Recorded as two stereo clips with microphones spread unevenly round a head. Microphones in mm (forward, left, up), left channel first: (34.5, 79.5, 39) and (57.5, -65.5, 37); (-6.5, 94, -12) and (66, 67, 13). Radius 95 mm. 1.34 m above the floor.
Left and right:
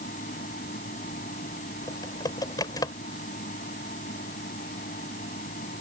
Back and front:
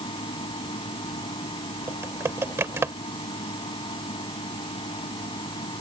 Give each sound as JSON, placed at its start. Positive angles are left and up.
{"t": 0.0, "sound": "a fan", "azimuth_deg": 150}
{"t": 1.9, "sound": "typing on a keyboard", "azimuth_deg": 35}